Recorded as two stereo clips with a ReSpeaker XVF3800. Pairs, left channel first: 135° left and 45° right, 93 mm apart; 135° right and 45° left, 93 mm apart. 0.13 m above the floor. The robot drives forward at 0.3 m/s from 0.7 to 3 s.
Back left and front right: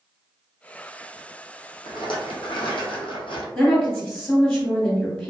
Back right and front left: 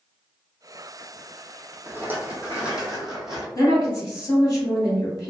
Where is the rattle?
110° left, 0.7 m; by 3.5 s 130° left, 0.9 m.